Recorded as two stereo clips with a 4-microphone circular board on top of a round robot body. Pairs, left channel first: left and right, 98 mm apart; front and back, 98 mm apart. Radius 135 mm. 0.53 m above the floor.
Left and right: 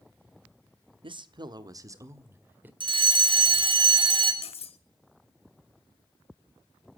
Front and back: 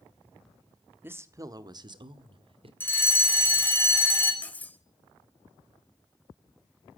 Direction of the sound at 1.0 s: 115° right.